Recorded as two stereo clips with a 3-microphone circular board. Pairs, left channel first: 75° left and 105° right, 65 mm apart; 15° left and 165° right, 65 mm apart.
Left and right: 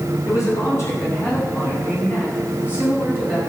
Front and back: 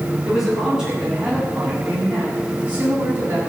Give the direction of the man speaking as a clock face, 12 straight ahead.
8 o'clock.